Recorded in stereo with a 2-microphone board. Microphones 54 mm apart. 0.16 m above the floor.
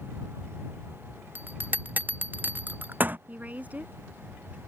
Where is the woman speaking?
30° right (ahead or behind).